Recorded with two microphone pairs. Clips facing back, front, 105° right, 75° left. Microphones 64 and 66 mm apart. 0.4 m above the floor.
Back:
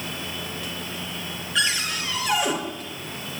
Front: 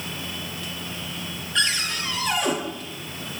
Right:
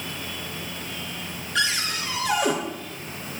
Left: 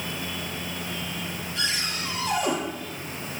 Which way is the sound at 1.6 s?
95° right.